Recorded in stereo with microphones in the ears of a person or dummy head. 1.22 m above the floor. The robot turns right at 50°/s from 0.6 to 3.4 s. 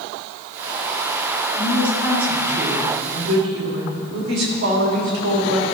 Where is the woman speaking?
155° left, 3 m; by 5.7 s 115° right, 3 m.